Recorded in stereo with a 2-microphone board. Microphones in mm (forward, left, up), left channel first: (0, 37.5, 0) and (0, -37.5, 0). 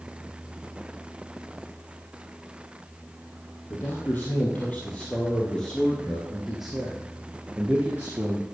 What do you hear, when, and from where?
3.7 s a man speaking: 25° left (ahead or behind), 3.5 m; by 8.4 s 35° right (ahead or behind), 2 m